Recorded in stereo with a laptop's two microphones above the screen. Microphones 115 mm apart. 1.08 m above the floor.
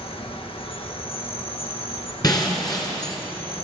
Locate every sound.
0.0 s an insect: 55° left (ahead or behind), 1.0 m
2.2 s breaking glass: 35° left (ahead or behind), 2 m